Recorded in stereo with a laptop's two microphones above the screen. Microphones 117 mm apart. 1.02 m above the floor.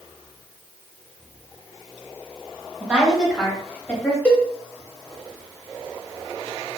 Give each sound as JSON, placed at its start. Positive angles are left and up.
{"t": 2.8, "sound": "a woman speaking", "side_deg": -15, "distance_m": 1.2}
{"t": 4.2, "sound": "a cowbell", "side_deg": 15, "distance_m": 0.8}